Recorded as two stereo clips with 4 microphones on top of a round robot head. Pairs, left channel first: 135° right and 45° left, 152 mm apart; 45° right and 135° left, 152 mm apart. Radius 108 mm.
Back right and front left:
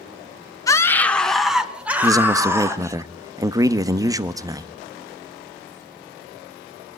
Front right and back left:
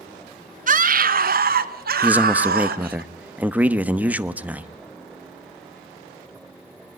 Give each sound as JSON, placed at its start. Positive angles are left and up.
{"t": 0.7, "sound": "a scream", "azimuth_deg": 155, "distance_m": 1.5}
{"t": 2.0, "sound": "a man speaking", "azimuth_deg": 70, "distance_m": 1.1}